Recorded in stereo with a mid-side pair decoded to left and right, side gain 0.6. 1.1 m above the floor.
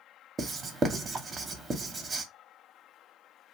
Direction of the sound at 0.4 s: 30° right.